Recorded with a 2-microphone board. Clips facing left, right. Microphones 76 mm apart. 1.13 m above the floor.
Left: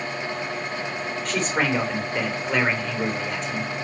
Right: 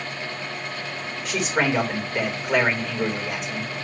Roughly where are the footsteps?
No footsteps in this recording.